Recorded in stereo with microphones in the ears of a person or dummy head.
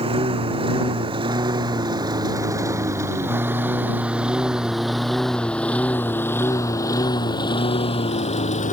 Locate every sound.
0.0 s a lawn mower: 25° right (ahead or behind); by 8.7 s 35° left (ahead or behind)